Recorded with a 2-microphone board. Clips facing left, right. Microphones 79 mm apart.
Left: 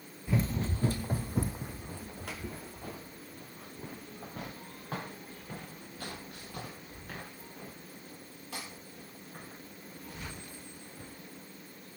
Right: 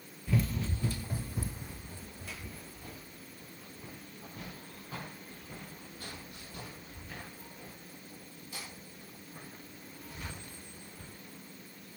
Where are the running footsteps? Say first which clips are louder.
Left 1 dB; 20° left (ahead or behind), 0.7 m; by 11.1 s 70° left (ahead or behind), 10 m.